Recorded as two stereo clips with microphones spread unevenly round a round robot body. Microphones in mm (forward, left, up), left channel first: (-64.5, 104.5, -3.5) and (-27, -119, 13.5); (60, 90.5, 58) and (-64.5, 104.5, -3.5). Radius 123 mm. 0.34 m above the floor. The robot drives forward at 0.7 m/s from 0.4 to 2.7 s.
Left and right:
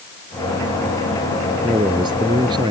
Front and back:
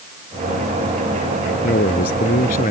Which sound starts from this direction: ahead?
A man speaking, at 1.6 s.